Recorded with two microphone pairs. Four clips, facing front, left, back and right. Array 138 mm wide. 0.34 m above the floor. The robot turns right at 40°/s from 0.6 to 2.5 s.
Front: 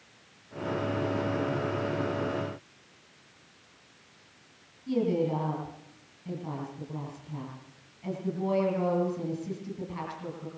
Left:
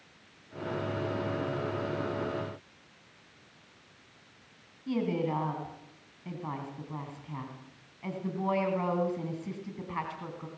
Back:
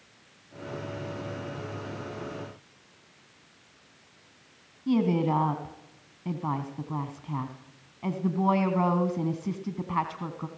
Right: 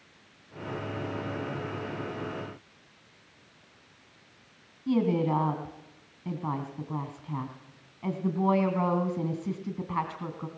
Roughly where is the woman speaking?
Behind.